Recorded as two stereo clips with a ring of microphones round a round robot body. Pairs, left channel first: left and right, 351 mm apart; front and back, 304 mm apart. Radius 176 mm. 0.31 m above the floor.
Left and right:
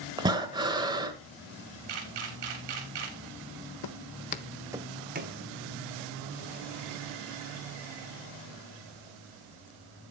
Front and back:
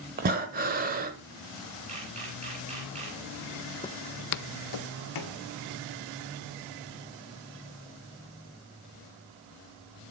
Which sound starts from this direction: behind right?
Breathing, at 0.2 s.